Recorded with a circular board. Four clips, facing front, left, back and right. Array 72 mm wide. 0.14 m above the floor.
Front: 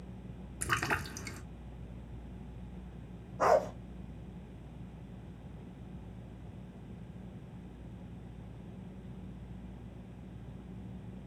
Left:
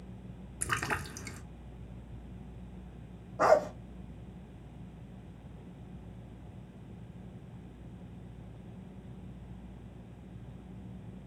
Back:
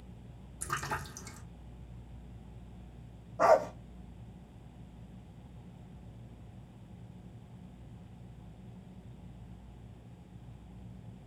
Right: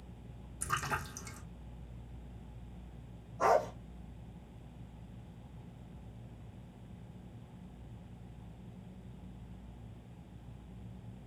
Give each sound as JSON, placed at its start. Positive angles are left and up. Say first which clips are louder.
{"t": 0.6, "sound": "a splash", "louder": "left 2 dB, front 3 dB", "azimuth_deg": 40, "distance_m": 0.7}
{"t": 3.4, "sound": "a dog barking", "louder": "left 4 dB, back 2 dB", "azimuth_deg": 110, "distance_m": 3.0}